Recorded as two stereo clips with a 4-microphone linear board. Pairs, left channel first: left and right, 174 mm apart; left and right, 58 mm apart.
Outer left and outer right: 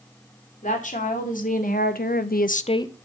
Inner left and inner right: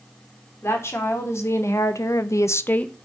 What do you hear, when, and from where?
0.6 s a woman speaking: 45° left (ahead or behind), 2 m; by 3.0 s 10° left (ahead or behind), 0.6 m